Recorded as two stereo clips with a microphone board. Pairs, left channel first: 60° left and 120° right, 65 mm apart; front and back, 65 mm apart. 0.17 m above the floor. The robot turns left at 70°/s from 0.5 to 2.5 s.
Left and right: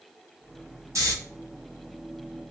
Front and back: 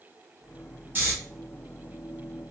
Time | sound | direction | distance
0.9 | snoring | 130° right | 1.4 m